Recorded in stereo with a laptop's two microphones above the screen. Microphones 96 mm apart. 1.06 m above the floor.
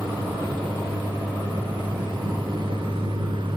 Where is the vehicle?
55° right (ahead or behind); by 3.6 s 60° right (ahead or behind).